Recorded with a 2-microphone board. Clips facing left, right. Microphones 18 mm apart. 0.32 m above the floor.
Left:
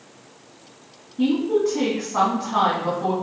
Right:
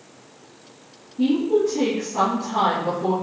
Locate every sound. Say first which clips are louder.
1.2 s a woman speaking: right 1 dB; 65° left (ahead or behind), 2.5 m